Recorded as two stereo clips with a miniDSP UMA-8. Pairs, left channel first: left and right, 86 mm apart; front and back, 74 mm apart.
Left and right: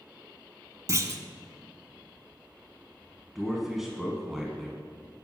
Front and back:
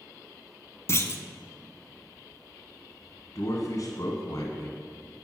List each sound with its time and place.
0.9 s a clunk: 45° right, 0.7 m
3.4 s a man speaking: 5° right, 1.5 m